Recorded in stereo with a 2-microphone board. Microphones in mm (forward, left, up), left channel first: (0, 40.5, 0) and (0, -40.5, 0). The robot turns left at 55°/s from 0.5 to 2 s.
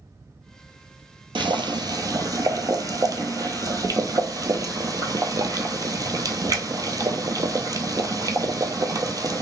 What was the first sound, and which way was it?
Boiling, 95° right.